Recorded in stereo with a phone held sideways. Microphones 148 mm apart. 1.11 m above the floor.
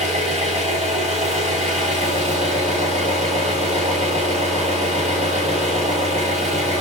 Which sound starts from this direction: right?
An engine running, at 0.0 s.